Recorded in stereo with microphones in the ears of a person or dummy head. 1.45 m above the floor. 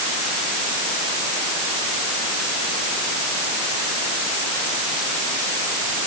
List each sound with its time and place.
Only background noise.